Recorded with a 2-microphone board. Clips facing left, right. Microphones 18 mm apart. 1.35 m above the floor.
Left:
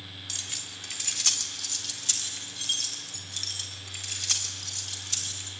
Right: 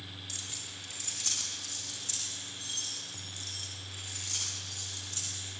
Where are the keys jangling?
30° left (ahead or behind), 2.5 m; by 5.5 s 50° left (ahead or behind), 6.5 m.